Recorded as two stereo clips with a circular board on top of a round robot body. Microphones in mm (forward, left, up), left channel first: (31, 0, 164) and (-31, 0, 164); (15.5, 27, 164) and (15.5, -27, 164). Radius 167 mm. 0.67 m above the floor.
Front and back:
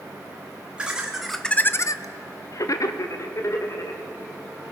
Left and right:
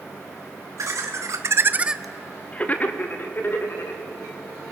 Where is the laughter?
105° right, 1.6 m; by 4.0 s 40° left, 3.5 m.